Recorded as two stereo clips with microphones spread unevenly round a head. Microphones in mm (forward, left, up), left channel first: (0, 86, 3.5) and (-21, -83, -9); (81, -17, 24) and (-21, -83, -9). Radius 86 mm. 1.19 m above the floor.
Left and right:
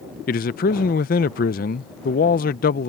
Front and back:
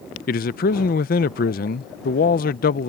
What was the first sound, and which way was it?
A man speaking, 40° left.